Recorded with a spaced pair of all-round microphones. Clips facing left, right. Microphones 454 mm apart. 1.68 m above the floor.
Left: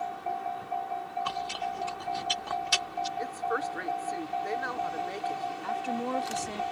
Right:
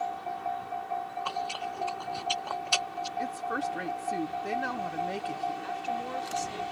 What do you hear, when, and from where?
1.2 s chewing: 35° left (ahead or behind)
3.2 s a woman speaking: 45° right (ahead or behind)
5.6 s a woman speaking: 65° left (ahead or behind)